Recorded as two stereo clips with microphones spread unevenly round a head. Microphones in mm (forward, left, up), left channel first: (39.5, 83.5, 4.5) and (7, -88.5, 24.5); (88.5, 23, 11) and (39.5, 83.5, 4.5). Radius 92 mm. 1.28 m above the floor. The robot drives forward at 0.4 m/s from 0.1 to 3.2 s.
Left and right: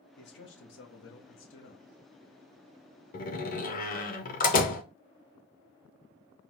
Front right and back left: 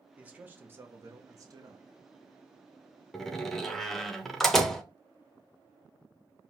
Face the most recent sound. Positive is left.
turn(degrees=35)